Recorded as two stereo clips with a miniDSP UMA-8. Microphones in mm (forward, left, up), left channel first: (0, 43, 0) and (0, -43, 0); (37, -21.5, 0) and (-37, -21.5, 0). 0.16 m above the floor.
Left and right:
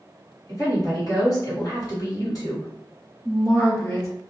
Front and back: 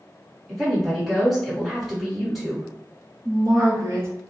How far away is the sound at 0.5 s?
About 1.9 m.